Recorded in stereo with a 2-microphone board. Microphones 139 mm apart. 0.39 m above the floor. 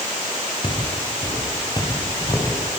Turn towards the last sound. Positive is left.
turn(degrees=25)  # may be behind; listen again after turning